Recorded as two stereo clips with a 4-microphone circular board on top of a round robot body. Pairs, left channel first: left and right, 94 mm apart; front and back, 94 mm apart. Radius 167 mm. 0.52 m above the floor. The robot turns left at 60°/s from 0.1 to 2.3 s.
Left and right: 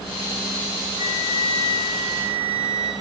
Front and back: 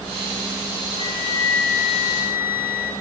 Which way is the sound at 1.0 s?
25° right.